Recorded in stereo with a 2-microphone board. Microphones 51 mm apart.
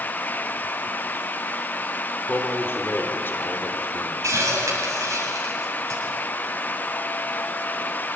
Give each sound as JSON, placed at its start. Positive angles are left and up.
{"t": 2.3, "sound": "a man speaking", "side_deg": 40, "distance_m": 3.0}
{"t": 4.2, "sound": "a hiss", "side_deg": -70, "distance_m": 8.0}